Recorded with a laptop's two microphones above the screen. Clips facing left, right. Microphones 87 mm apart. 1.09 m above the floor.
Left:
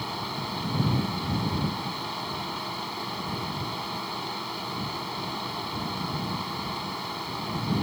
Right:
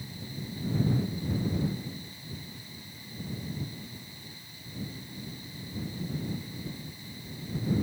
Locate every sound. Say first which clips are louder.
0.0 s a fan: left 9 dB; 85° left